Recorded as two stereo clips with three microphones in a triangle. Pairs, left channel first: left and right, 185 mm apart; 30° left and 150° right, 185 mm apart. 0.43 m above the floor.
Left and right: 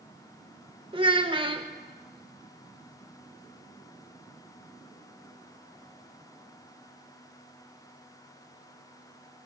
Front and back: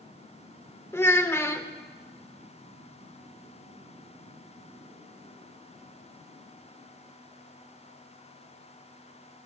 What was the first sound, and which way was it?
A child speaking, 45° right.